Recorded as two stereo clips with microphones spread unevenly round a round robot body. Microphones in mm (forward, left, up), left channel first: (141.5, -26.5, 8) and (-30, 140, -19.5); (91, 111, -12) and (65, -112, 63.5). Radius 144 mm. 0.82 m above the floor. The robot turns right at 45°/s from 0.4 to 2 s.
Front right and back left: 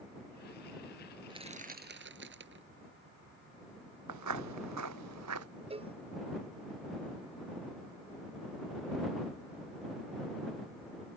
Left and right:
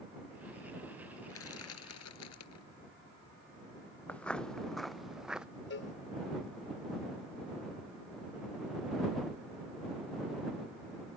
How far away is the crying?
No crying in this recording.